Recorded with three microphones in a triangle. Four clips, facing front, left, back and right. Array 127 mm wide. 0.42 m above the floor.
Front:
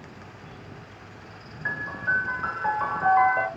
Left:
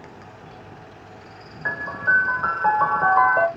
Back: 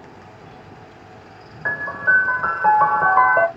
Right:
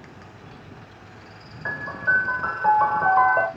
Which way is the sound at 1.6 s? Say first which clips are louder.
Left 2 dB, back 8 dB; 170° left.